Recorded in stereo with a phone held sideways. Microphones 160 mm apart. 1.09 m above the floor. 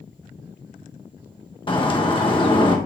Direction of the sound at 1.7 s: 30° left (ahead or behind).